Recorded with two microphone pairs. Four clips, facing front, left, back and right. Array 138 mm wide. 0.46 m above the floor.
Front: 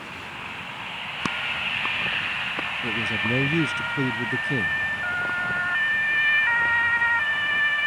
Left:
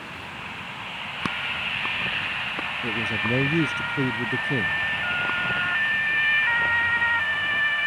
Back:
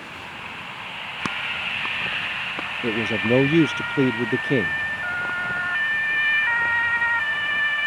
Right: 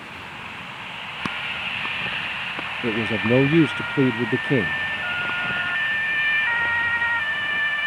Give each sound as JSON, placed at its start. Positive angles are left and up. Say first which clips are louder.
{"t": 2.8, "sound": "a man speaking", "louder": "right 7 dB, back 7 dB", "azimuth_deg": -145}